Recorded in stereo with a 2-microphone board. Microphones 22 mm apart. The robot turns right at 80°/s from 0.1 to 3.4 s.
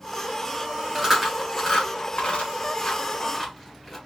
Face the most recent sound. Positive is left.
turn(degrees=20)  # may be behind; listen again after turning